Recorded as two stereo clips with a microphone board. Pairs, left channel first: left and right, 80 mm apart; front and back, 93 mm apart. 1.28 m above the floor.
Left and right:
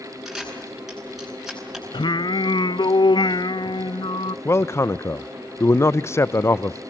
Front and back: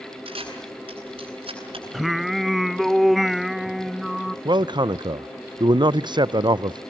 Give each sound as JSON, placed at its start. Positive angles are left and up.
{"t": 0.2, "sound": "a camera shutter", "azimuth_deg": -175, "distance_m": 9.0}
{"t": 1.9, "sound": "singing", "azimuth_deg": 90, "distance_m": 0.6}
{"t": 4.5, "sound": "a man speaking", "azimuth_deg": 145, "distance_m": 0.6}